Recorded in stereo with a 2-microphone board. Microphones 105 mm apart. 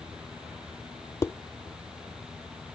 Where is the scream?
I don't hear a scream.